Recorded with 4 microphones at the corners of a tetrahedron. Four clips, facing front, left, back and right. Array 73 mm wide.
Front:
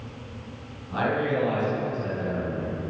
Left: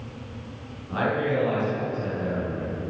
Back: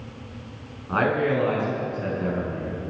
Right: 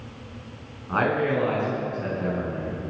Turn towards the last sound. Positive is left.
turn(degrees=-140)